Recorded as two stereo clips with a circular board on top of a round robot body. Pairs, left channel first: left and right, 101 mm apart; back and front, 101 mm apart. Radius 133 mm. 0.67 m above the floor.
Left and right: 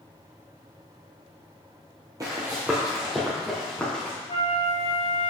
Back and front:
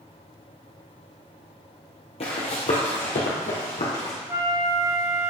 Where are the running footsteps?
150° right, 1.2 m; by 4.2 s 170° left, 2.5 m.